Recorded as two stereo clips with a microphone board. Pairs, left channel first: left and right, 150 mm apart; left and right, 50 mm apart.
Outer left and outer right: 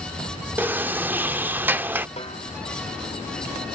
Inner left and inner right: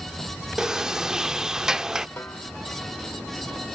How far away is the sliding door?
About 0.7 m.